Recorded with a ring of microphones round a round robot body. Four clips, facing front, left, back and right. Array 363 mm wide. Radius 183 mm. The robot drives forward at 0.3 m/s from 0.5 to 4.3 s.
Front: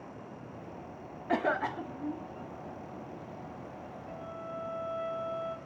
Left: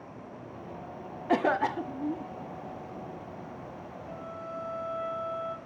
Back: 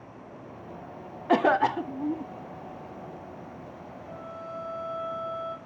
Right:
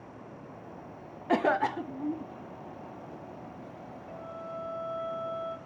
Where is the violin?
55° left, 6 m; by 5.6 s 60° left, 6 m.